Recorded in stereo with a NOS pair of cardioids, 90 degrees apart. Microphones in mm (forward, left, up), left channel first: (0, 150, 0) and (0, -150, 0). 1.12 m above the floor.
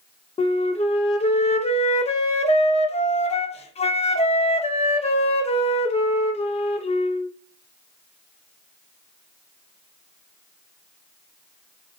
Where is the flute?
20° left, 0.6 m.